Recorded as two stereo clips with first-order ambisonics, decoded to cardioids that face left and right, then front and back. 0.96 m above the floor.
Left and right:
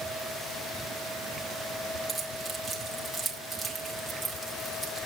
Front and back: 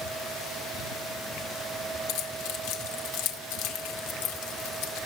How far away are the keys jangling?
About 2 m.